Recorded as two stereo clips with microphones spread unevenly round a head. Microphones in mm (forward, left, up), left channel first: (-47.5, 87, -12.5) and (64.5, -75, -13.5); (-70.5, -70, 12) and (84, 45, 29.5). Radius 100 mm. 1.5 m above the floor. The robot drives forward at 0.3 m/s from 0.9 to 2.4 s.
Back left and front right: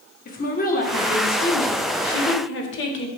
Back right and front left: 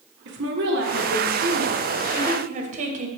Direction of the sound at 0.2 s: 75° left.